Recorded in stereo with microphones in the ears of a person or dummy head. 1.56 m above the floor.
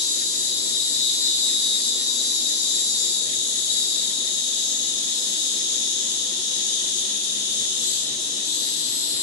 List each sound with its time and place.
0.0 s an insect: 45° left (ahead or behind), 0.8 m